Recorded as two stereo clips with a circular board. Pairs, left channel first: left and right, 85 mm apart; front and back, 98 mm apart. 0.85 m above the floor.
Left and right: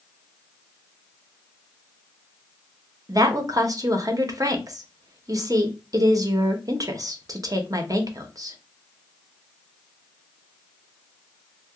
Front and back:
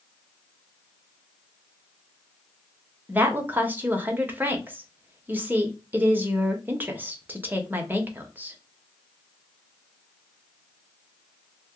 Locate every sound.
3.1 s a woman speaking: 115° right, 0.7 m